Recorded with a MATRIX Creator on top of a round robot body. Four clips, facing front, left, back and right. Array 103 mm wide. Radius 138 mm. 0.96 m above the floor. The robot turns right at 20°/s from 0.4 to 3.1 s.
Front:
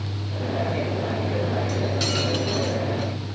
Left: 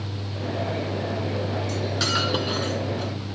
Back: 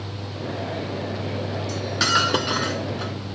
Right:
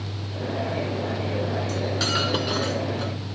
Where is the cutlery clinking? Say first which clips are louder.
Even, back 2 dB; 165° left; by 3.1 s 165° right.